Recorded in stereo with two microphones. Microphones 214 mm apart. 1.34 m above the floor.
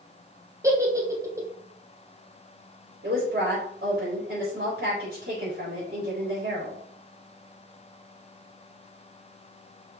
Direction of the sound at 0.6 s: 15° right (ahead or behind).